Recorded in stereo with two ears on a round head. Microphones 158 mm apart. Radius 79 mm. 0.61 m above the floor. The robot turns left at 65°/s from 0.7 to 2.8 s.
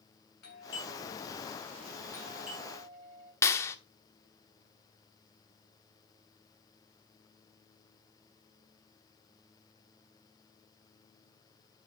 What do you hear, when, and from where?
0.4 s a doorbell: 110° left, 8 m; by 3.3 s 25° right, 8 m
3.4 s a clap: 15° left (ahead or behind), 1.2 m